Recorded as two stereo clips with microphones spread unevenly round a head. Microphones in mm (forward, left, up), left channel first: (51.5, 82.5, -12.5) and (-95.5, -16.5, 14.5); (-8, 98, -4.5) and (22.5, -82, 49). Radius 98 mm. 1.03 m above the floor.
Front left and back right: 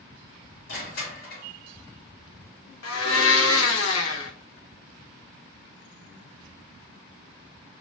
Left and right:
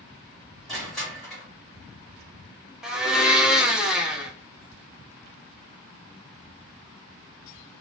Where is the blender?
5° left, 0.8 m.